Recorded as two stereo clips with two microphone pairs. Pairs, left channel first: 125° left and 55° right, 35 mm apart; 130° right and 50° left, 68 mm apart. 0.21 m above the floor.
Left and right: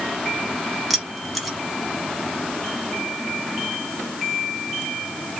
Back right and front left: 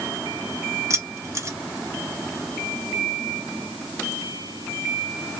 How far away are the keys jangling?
About 1.1 m.